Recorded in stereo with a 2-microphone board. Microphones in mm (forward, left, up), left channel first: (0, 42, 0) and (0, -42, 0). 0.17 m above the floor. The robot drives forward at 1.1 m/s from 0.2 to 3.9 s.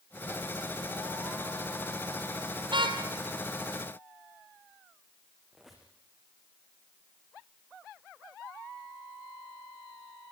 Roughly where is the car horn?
Right.